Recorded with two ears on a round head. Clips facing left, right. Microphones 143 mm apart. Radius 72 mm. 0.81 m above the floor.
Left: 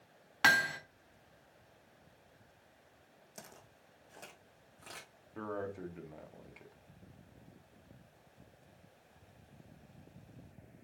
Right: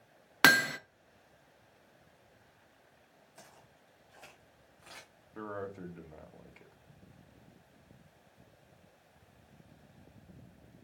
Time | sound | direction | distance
0.4 | hammering | 65° right (ahead or behind) | 0.7 m
3.4 | footsteps | 55° left (ahead or behind) | 2.5 m
5.3 | a man speaking | centre (ahead or behind) | 1.6 m